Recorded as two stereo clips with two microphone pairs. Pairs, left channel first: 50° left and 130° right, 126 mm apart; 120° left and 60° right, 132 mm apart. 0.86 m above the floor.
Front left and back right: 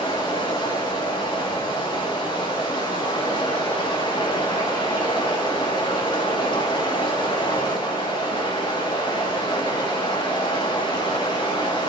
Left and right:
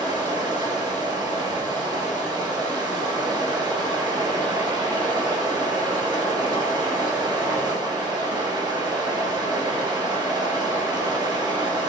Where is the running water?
5° right, 3 m.